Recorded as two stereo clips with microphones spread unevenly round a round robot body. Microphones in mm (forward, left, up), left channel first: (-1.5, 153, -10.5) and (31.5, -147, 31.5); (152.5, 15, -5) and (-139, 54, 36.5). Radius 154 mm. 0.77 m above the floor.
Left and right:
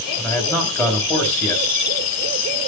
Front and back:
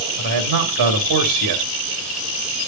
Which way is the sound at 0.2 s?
175° left.